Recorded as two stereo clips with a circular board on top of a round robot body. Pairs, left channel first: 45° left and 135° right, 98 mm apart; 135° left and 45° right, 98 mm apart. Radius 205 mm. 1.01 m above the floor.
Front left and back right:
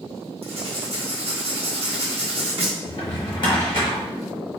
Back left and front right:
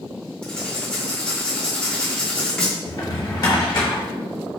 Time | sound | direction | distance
0.4 | writing | 145° right | 1.2 m
2.9 | a drawer | 90° left | 0.9 m